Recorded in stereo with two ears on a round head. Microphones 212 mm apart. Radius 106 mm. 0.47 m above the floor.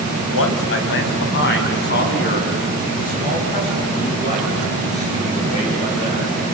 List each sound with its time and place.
0.3 s a man speaking: 65° left (ahead or behind), 3 m; by 6.2 s 25° left (ahead or behind), 10.5 m